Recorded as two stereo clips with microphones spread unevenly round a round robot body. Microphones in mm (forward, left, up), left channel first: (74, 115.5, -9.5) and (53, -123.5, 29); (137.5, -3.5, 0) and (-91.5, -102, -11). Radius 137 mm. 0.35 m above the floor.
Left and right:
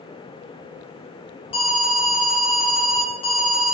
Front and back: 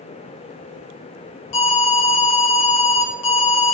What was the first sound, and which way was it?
An alarm, 25° left.